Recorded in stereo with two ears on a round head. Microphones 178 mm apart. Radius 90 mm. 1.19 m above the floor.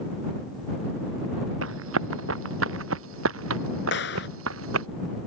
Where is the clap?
60° left (ahead or behind).